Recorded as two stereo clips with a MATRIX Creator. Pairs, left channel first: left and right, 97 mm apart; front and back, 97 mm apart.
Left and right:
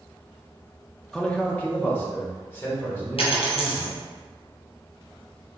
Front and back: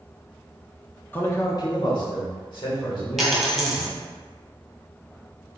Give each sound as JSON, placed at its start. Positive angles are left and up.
{"t": 1.1, "sound": "a man speaking", "azimuth_deg": 15, "distance_m": 0.7}
{"t": 3.2, "sound": "a dropped coin", "azimuth_deg": 90, "distance_m": 1.7}